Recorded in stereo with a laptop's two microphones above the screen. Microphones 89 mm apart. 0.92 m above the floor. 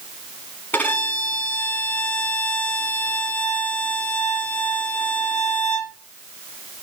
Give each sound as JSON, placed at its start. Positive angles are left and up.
{"t": 0.7, "sound": "a violin", "side_deg": 20, "distance_m": 3.5}